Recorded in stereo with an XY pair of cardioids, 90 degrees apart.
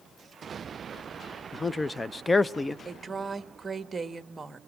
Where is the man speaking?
25° left, 0.7 m.